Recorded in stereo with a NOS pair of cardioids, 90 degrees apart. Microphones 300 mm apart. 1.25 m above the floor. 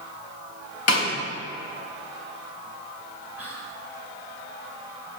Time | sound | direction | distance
0.9 | a snare drum | 50° left | 3.5 m
3.4 | whispering | 5° right | 1.9 m